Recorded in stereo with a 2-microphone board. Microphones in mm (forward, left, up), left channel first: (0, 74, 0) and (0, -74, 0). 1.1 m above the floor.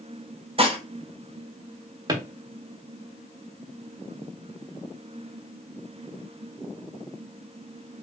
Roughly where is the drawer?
Right.